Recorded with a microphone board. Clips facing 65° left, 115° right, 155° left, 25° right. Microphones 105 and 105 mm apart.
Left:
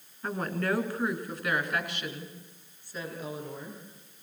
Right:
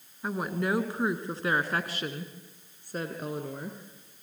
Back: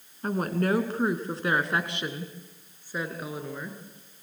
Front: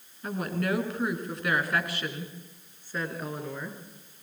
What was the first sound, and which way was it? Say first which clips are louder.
A woman speaking: right 1 dB, back 4 dB; 170° left.